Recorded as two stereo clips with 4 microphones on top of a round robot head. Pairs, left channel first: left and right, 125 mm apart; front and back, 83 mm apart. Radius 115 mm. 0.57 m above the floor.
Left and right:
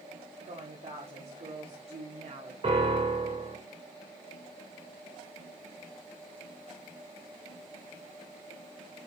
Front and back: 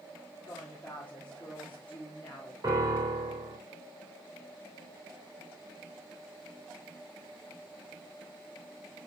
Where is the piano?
130° right, 2 m.